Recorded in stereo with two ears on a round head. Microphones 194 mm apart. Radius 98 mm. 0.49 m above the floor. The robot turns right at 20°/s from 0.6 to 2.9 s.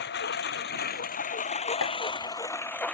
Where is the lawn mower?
125° left; by 2.9 s 175° left.